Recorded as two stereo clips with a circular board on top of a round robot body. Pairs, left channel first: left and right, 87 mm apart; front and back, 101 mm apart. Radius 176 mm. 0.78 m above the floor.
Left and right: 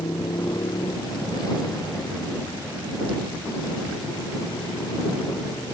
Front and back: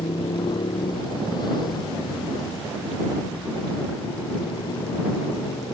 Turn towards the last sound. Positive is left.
turn(degrees=50)